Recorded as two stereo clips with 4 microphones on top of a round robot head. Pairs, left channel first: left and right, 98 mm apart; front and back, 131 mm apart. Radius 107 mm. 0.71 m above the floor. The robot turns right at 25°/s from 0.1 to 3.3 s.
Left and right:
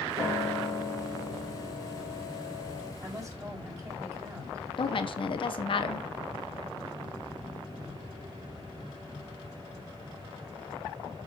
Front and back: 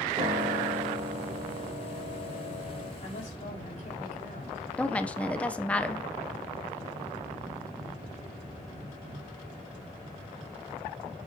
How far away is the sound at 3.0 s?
About 5 m.